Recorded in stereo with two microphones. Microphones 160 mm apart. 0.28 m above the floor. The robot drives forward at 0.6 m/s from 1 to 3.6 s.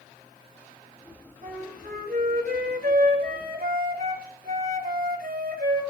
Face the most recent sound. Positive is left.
turn(degrees=-75)  # may be behind; listen again after turning